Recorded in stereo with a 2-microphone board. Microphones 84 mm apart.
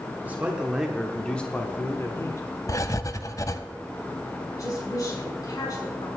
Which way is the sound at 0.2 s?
20° right (ahead or behind).